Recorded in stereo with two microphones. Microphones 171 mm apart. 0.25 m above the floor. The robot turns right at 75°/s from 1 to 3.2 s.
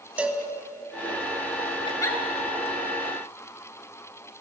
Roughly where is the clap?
I don't hear a clap.